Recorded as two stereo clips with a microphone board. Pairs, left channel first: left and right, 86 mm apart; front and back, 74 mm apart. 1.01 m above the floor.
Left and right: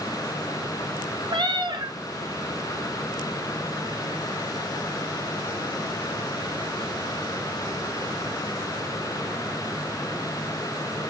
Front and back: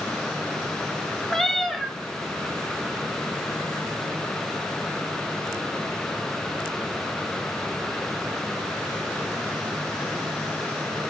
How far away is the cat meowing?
About 1.2 m.